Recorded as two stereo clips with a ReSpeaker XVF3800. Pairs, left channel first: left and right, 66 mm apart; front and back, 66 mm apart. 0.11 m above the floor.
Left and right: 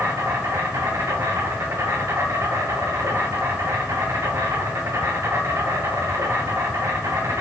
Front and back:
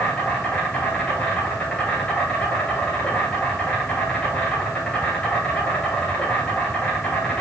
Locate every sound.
0.0 s an insect: 65° right, 1.0 m